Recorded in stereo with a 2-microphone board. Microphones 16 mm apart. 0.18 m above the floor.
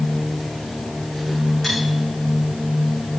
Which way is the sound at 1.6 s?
10° left (ahead or behind).